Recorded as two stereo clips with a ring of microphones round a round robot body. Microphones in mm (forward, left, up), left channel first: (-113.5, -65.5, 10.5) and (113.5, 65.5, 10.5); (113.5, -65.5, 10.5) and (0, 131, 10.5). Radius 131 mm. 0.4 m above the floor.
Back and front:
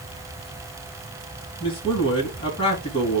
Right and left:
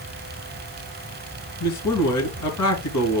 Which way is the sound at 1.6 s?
80° right.